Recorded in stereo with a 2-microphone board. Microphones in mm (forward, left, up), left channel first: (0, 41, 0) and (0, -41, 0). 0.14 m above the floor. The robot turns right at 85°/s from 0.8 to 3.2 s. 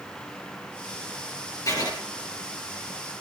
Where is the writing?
45° left (ahead or behind), 3.5 m; by 1.9 s 55° left (ahead or behind), 3.5 m.